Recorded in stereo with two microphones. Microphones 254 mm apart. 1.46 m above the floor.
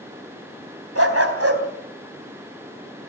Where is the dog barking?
65° right (ahead or behind), 3.5 m.